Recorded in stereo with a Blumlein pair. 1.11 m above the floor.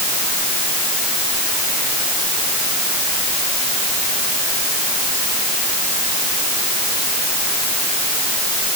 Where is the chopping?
No chopping in this recording.